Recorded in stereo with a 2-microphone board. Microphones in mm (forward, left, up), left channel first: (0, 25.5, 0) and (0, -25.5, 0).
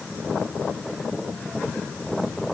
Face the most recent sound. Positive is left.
No sound to turn to.